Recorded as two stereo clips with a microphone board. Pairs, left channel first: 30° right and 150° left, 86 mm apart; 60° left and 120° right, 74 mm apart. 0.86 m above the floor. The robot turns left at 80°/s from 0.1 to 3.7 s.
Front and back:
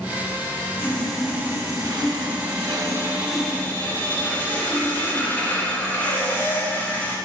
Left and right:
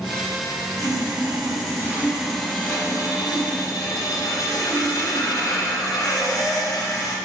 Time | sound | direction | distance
0.8 | sawing | 90° right | 1.5 m